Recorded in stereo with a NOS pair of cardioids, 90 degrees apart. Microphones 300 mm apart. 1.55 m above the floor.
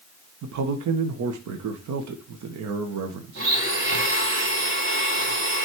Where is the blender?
40° right, 4 m.